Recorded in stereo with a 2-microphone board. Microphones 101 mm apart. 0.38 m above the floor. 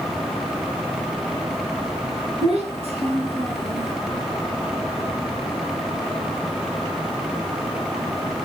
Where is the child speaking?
70° right (ahead or behind), 3.5 m.